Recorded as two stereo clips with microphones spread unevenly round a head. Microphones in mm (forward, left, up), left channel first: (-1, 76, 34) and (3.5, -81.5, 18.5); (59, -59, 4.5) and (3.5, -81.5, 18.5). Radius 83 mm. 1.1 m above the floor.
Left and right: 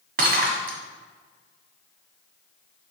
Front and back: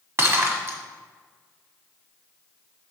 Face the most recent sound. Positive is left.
turn(degrees=-125)